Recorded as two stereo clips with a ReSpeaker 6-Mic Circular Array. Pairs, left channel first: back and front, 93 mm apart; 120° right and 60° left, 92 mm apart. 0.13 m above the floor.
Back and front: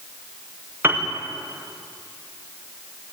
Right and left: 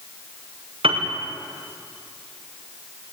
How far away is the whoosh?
I don't hear a whoosh.